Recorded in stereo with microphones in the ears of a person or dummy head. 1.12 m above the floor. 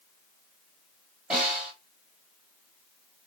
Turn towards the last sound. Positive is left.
turn(degrees=-5)  # may be behind; listen again after turning